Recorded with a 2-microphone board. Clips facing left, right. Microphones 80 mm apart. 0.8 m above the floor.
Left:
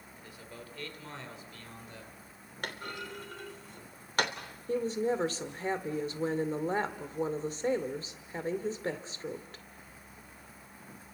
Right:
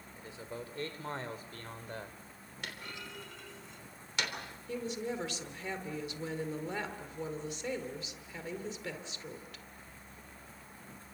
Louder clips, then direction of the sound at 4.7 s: Left 7 dB; 40° left (ahead or behind).